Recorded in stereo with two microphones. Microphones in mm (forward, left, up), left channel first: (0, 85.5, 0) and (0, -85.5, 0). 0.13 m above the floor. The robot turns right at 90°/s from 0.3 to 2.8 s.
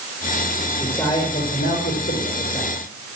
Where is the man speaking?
5° right, 7.5 m; by 2.8 s 175° left, 7.5 m.